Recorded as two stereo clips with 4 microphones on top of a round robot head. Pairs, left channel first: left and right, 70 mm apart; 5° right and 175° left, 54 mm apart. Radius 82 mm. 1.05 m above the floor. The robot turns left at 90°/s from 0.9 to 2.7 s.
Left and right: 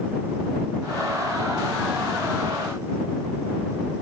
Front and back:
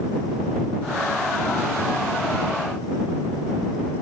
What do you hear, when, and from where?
Only background noise.